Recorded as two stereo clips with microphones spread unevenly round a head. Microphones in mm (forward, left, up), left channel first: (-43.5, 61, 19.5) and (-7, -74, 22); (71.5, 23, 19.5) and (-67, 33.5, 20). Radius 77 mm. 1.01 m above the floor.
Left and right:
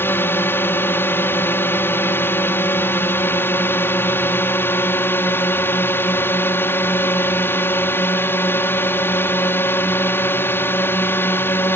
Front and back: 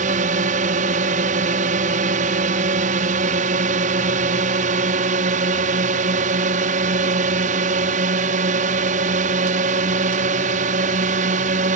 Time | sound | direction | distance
0.0 | a drone | 175° left | ?